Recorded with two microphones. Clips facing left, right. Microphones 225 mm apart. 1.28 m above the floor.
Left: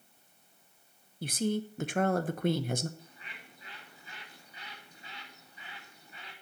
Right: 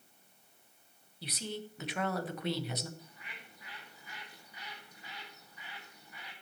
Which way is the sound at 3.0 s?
30° left (ahead or behind).